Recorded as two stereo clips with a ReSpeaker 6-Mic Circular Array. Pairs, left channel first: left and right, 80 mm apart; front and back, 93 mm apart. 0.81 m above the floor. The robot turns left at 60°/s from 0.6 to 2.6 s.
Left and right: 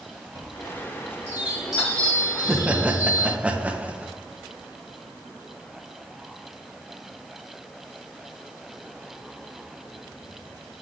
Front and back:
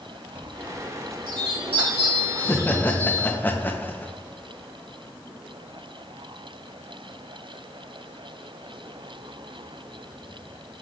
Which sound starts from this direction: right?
A chime, at 0.3 s.